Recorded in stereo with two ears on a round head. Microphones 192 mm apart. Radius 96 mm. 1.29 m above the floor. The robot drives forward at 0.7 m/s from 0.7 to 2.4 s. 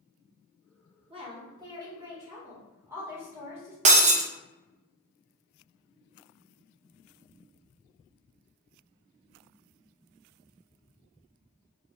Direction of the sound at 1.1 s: 30° right (ahead or behind).